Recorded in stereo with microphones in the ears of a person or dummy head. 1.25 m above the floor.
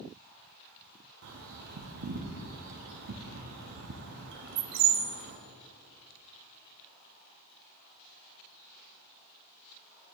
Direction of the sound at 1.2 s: 60° right (ahead or behind).